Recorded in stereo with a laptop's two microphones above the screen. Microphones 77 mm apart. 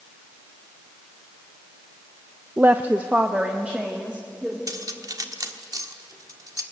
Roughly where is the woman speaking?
Right.